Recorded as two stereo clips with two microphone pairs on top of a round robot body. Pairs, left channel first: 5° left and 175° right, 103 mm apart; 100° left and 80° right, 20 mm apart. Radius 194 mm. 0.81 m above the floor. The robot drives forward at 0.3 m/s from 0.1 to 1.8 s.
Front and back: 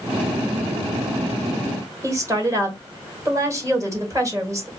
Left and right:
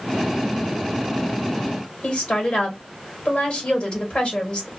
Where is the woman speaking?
130° left, 1.4 m.